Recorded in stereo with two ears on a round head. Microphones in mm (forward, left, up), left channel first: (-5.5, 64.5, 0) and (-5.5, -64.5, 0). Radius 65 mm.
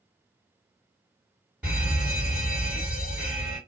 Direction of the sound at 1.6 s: 10° right (ahead or behind).